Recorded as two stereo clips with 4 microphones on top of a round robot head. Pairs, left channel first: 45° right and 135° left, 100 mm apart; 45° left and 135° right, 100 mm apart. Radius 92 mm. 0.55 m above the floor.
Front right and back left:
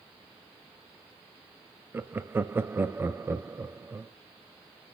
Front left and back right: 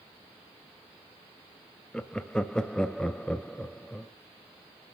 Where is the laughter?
115° left, 0.6 m.